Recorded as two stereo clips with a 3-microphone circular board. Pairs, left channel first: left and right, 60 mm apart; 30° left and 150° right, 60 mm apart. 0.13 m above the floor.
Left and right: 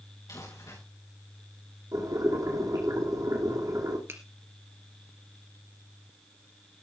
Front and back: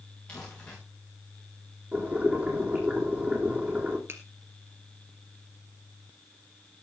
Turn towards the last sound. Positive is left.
turn(degrees=-120)